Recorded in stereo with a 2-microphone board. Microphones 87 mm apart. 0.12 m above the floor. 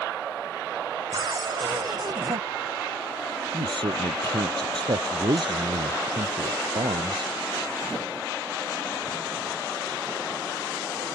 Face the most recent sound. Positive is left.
turn(degrees=-65)  # may be behind; listen again after turning